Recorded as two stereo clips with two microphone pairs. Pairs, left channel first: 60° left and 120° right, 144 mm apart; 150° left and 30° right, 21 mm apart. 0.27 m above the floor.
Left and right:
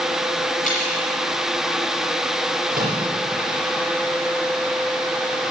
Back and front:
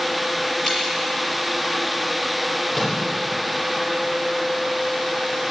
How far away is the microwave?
About 6.5 m.